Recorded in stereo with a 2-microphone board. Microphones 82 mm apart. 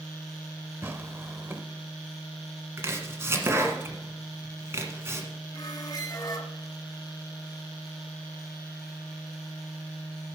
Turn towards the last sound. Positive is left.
turn(degrees=60)  # may be behind; listen again after turning